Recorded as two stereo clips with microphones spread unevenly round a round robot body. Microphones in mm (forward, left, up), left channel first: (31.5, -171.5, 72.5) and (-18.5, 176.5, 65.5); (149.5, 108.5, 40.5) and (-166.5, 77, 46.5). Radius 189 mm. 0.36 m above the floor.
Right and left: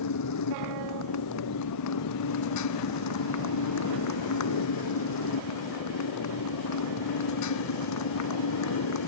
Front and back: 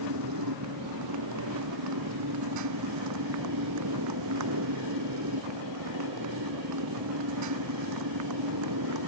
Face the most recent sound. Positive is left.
turn(degrees=-125)